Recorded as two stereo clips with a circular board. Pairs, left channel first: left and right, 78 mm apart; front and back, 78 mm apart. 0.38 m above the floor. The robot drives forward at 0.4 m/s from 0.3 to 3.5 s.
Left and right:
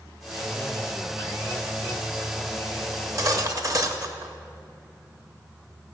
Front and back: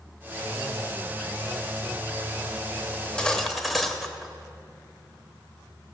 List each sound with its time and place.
2.9 s cutlery clinking: 65° right, 0.8 m; by 4.3 s 85° right, 0.8 m